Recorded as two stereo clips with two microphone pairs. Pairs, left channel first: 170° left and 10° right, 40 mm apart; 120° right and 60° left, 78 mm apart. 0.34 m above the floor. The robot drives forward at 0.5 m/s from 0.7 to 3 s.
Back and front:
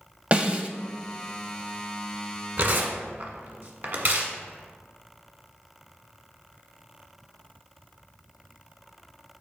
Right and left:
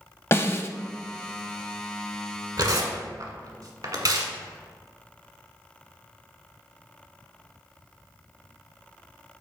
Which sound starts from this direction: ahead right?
A snare drum, at 0.3 s.